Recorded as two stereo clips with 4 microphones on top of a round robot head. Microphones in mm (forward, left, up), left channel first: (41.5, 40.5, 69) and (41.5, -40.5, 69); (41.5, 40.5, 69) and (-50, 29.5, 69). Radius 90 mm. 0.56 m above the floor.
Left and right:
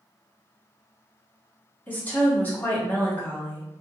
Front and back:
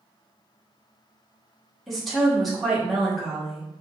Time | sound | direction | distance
1.9 | a woman speaking | 95° left | 1.2 m